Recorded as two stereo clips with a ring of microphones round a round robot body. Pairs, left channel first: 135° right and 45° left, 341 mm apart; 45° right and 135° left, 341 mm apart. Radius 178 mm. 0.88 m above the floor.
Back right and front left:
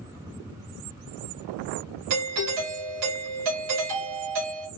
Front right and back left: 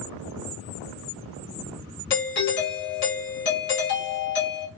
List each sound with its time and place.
2.1 s a doorbell: 10° left, 2 m